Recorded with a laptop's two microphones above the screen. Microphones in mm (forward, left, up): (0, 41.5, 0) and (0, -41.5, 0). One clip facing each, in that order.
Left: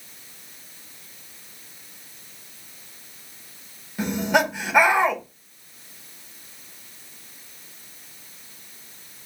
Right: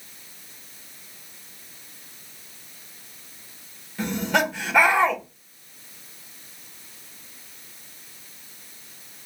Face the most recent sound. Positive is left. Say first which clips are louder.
# left 2 dB
turn(degrees=15)  # may be behind; listen again after turning